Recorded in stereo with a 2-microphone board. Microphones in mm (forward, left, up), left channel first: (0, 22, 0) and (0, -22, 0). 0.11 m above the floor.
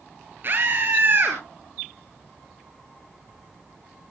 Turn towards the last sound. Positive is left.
turn(degrees=-45)  # may be behind; listen again after turning